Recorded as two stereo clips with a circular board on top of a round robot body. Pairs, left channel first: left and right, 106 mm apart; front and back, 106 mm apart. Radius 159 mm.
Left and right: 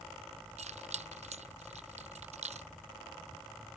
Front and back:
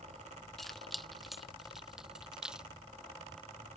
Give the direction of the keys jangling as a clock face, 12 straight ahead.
3 o'clock.